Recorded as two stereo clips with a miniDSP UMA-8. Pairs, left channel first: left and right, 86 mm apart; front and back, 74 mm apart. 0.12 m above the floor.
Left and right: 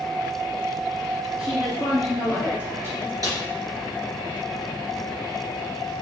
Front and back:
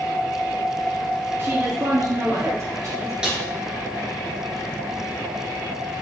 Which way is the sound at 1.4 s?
165° right.